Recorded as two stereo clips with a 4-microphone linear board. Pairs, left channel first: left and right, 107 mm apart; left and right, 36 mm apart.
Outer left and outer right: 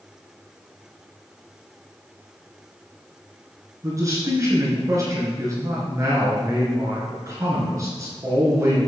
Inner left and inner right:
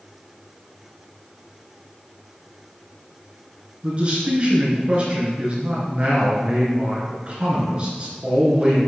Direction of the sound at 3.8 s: 35° right (ahead or behind).